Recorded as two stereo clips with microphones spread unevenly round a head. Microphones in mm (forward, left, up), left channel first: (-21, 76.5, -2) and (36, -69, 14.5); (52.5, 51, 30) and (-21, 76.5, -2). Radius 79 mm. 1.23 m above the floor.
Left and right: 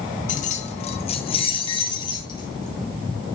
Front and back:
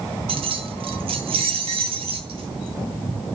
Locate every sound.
0.3 s keys jangling: 155° left, 1.2 m; by 3.4 s straight behind, 3 m